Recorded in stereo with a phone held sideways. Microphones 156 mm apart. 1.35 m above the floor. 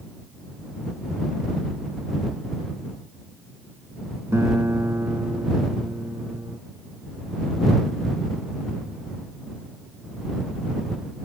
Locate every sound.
4.3 s a guitar: 20° right (ahead or behind)